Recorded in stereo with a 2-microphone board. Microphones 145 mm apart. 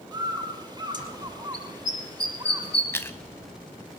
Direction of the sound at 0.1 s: 30° right (ahead or behind).